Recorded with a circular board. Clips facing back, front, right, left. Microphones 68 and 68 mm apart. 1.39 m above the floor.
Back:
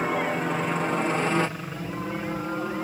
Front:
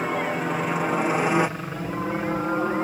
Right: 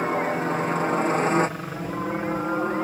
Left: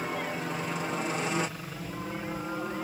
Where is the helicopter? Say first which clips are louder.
Even, right 9 dB; 90° right; by 2.8 s 50° right.